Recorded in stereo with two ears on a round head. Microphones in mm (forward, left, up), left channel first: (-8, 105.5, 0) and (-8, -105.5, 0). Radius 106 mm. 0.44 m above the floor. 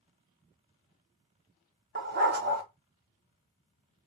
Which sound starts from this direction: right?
A dog barking, at 1.9 s.